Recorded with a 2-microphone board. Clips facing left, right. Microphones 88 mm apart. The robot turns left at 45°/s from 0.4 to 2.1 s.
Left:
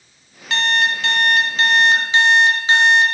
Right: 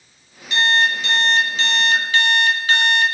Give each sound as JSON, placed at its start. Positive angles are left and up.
{"t": 0.5, "sound": "an alarm clock", "azimuth_deg": 95, "distance_m": 1.5}